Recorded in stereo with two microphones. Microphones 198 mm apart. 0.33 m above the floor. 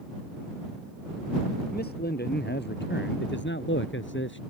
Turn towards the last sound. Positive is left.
turn(degrees=75)  # may be behind; listen again after turning